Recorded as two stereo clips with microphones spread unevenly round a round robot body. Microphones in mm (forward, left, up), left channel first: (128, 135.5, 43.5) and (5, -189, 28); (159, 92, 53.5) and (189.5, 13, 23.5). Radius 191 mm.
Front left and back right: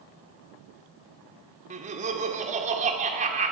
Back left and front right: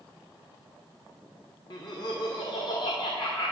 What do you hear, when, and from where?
1.7 s laughter: straight behind, 1.8 m